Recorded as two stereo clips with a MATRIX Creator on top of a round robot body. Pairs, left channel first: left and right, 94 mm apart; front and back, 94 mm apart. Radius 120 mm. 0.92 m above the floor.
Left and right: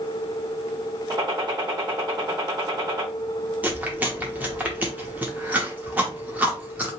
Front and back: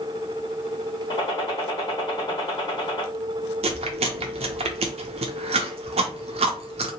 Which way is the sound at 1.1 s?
45° right.